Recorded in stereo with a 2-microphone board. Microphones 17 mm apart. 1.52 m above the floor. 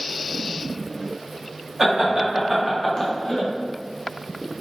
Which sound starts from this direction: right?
Laughter, at 1.8 s.